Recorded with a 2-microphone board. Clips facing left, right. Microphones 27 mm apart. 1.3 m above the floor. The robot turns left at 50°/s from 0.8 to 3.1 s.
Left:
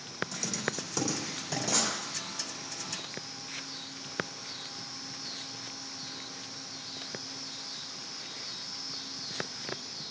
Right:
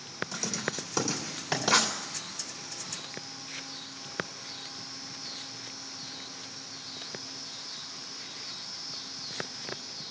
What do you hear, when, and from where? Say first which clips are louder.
0.3 s writing: right 2 dB; 20° right (ahead or behind), 3 m; by 1.9 s 70° right (ahead or behind), 3 m